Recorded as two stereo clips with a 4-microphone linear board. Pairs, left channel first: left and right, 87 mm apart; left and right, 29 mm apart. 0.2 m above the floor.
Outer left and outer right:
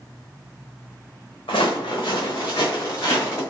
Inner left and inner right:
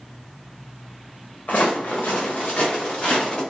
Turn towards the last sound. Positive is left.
turn(degrees=30)  # may be behind; listen again after turning